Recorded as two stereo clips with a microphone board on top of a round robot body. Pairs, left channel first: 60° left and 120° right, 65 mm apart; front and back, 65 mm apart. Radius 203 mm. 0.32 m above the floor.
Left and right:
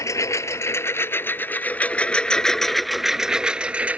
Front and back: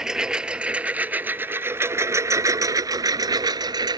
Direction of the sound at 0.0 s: 100° left.